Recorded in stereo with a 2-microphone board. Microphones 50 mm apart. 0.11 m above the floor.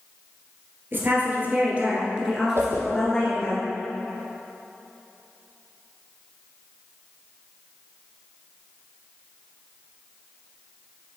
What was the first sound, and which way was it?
A woman speaking, 45° right (ahead or behind).